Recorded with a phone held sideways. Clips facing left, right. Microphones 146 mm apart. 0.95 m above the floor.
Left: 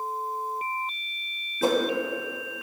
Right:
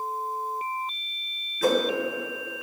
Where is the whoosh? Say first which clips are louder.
Right 1 dB; 30° left (ahead or behind), 0.9 m.